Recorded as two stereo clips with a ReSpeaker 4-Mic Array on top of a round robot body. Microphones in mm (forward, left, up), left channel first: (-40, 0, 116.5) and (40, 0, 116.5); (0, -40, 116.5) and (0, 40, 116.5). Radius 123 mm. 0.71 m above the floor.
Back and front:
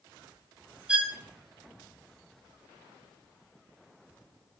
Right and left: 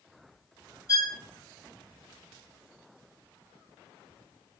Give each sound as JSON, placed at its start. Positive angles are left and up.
{"t": 0.9, "sound": "a violin", "azimuth_deg": -75, "distance_m": 0.6}